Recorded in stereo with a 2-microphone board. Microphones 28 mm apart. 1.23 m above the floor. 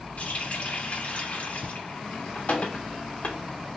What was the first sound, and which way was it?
A running tap, 50° left (ahead or behind).